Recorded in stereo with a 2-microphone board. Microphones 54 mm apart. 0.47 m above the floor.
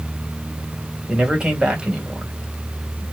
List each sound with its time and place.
1.1 s a man speaking: 15° right (ahead or behind), 2.5 m